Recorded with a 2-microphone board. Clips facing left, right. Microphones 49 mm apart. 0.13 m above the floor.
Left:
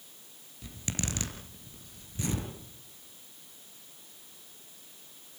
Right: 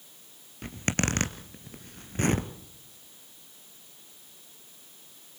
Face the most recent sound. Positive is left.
turn(degrees=-55)  # may be behind; listen again after turning